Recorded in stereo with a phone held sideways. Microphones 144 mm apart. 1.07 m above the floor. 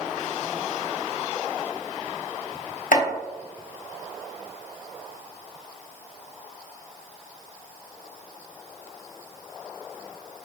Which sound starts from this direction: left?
Chopping, at 2.9 s.